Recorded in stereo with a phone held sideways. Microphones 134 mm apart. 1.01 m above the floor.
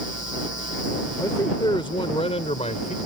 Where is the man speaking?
25° left (ahead or behind); by 3.0 s 65° left (ahead or behind).